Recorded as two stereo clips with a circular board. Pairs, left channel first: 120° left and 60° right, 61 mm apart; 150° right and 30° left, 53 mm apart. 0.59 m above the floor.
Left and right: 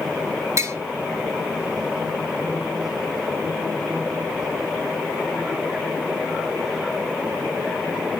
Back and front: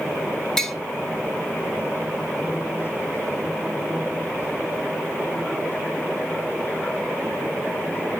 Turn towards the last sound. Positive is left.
turn(degrees=-70)